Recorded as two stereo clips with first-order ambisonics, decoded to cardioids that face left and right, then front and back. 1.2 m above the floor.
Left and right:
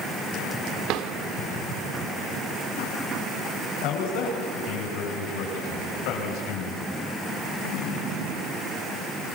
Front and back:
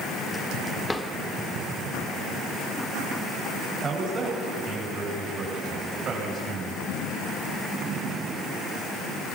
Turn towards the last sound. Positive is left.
turn(degrees=110)